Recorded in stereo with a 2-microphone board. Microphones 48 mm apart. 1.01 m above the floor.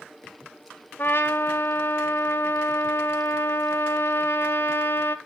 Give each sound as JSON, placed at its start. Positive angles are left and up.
{"t": 1.0, "sound": "a trumpet", "side_deg": 50, "distance_m": 0.8}